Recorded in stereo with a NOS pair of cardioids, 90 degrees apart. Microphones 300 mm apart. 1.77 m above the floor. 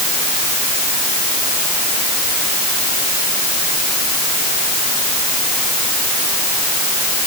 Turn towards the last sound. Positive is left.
No sound to turn to.